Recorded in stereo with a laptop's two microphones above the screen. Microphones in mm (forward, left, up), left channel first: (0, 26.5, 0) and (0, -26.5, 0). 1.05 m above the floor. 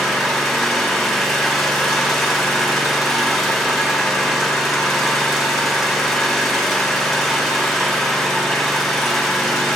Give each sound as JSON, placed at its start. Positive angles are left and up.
{"t": 0.0, "sound": "an engine running", "side_deg": 0, "distance_m": 1.9}